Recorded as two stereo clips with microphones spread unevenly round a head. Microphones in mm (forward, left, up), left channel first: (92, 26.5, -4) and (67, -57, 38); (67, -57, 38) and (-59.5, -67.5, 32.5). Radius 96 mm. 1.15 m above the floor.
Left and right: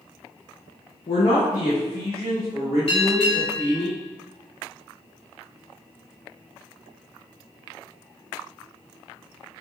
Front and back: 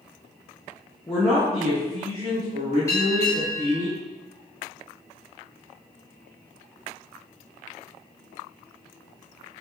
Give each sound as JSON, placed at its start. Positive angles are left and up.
{"t": 1.1, "sound": "a man speaking", "azimuth_deg": 85, "distance_m": 0.6}
{"t": 2.9, "sound": "a bell", "azimuth_deg": 80, "distance_m": 1.2}